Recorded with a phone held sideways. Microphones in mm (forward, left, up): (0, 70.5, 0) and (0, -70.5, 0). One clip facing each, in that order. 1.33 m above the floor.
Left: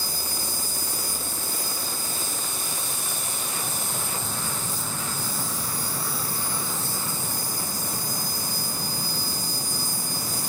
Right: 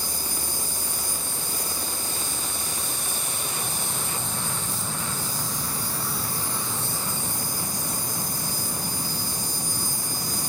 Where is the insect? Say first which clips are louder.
Even; 5° left (ahead or behind), 4.5 m.